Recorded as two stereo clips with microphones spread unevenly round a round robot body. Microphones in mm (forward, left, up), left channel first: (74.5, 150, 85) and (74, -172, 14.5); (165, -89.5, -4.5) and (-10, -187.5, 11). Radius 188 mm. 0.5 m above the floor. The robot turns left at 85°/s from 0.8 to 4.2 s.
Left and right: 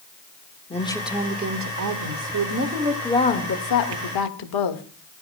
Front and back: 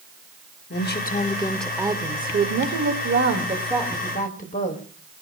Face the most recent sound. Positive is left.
turn(degrees=85)